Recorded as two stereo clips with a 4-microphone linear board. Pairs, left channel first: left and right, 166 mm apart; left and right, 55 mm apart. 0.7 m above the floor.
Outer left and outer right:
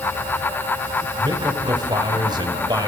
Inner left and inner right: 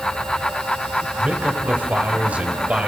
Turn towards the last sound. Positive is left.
turn(degrees=-25)  # may be behind; listen again after turning